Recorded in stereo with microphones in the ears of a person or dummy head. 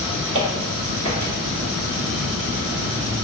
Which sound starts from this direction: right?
Footsteps, at 0.3 s.